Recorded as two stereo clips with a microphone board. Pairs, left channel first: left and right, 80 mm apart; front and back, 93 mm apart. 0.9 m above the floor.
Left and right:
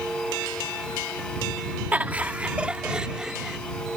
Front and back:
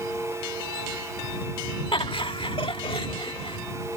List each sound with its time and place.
1.9 s laughter: 20° right; by 3.6 s 10° right